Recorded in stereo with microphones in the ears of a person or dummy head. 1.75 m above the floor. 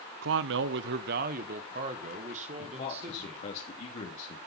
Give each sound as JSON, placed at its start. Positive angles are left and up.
{"t": 0.2, "sound": "a man speaking", "side_deg": -65, "distance_m": 0.7}
{"t": 2.6, "sound": "a man speaking", "side_deg": 40, "distance_m": 3.0}